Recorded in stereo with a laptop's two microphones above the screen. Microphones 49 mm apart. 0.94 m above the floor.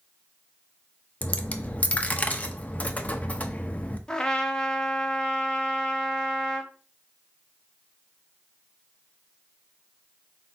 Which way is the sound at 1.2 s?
30° left (ahead or behind).